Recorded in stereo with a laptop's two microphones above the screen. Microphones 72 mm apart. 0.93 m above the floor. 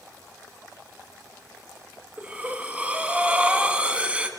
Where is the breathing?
20° right (ahead or behind), 1.3 m.